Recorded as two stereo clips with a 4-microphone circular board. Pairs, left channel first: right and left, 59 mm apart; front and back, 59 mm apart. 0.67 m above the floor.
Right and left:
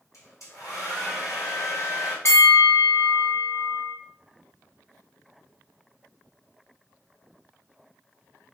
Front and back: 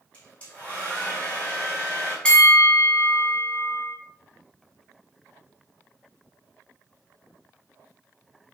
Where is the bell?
70° right, 0.8 m.